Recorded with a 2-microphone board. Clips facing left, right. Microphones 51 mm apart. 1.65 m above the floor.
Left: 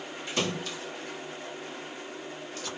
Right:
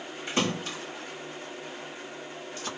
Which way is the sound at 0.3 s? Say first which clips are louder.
Right 2 dB; 30° right (ahead or behind).